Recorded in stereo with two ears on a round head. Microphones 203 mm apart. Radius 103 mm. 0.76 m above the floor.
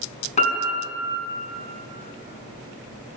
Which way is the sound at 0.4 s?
30° left (ahead or behind).